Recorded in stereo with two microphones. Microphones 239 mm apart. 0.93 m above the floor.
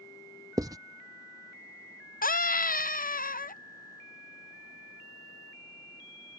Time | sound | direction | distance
0.6 | writing | 15° right (ahead or behind) | ?
2.2 | a scream | 35° left (ahead or behind) | ?